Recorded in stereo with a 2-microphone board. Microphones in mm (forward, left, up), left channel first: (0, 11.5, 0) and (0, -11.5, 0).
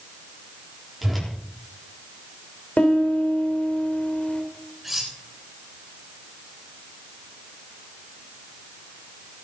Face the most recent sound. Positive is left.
turn(degrees=-5)  # may be behind; listen again after turning